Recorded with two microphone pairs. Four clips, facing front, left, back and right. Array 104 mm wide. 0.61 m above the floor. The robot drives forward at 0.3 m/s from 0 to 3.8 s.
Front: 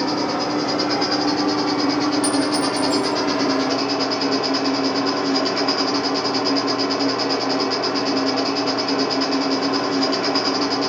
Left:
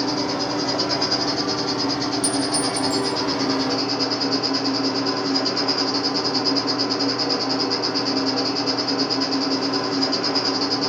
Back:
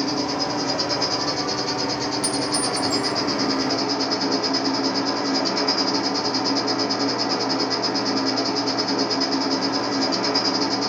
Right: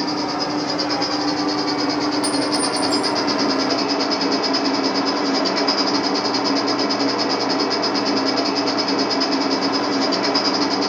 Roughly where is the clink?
Behind right.